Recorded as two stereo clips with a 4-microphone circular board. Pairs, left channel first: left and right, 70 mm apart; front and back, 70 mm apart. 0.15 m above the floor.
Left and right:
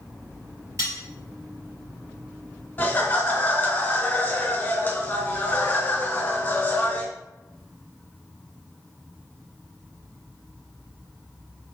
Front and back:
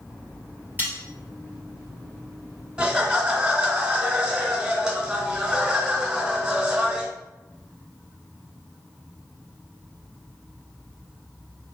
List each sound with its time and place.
0.8 s cutlery clinking: 120° right, 1.7 m
2.8 s laughter: 115° left, 1.2 m